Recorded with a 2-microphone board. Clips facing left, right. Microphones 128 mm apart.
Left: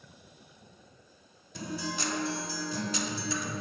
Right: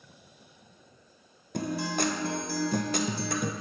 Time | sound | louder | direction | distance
1.5 | a guitar | right 6 dB | 55° right (ahead or behind) | 0.6 m